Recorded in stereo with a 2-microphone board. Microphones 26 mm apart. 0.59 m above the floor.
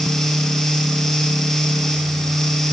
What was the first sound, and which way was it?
Only background noise.